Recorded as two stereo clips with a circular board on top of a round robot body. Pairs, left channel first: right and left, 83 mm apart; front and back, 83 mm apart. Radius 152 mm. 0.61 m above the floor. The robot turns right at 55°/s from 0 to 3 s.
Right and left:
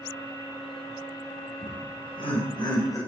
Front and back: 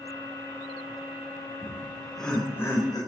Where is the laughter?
115° right, 3.5 m; by 3.0 s 40° right, 3.5 m.